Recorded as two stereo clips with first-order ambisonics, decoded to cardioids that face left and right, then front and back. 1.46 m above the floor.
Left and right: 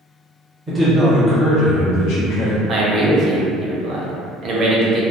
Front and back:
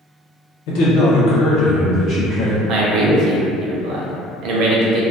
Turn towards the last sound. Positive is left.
turn(degrees=-145)